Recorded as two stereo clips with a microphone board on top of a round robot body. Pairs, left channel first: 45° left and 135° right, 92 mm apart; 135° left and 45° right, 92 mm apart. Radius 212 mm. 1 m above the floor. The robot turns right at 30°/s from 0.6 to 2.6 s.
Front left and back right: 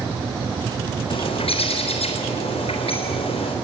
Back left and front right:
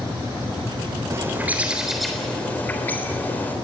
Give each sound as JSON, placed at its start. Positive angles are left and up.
{"t": 1.1, "sound": "a bird", "azimuth_deg": 15, "distance_m": 3.5}